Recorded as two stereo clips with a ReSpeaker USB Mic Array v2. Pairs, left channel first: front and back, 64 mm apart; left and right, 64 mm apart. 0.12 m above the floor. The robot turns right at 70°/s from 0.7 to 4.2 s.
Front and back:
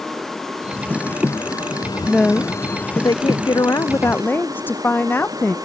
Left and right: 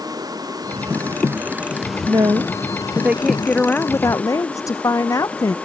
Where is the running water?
85° right; by 5.7 s 160° left.